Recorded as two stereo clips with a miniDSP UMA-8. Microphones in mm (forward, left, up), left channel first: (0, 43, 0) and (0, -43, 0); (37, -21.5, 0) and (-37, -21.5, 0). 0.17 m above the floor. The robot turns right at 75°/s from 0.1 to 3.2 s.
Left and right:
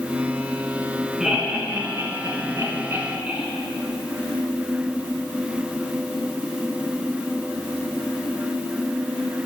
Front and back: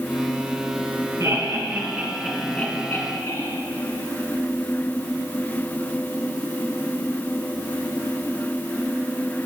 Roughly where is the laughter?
Behind.